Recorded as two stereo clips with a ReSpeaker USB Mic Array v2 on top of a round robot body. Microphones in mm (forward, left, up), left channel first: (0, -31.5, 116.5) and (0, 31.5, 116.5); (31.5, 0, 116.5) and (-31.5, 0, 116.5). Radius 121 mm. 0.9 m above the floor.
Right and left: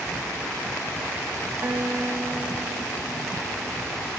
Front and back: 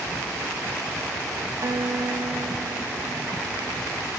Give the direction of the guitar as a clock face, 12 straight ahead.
7 o'clock.